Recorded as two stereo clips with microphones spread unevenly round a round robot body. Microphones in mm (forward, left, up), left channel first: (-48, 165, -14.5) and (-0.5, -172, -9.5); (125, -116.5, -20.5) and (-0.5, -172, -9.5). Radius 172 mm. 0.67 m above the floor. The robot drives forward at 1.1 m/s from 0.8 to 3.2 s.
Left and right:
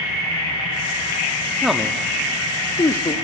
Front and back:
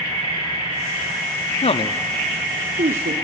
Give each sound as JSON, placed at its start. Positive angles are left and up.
{"t": 1.6, "sound": "a man speaking", "azimuth_deg": 5, "distance_m": 0.8}